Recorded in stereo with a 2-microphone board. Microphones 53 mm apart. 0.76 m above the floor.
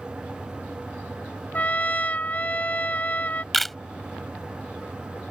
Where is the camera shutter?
Centre (ahead or behind).